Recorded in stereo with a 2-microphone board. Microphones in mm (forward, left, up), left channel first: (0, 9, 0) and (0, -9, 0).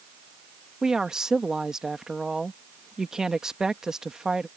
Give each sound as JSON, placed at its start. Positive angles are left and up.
{"t": 0.8, "sound": "a woman speaking", "side_deg": -35}